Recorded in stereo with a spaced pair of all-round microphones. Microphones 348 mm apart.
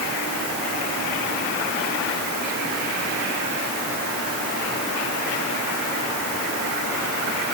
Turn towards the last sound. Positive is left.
No sound to turn to.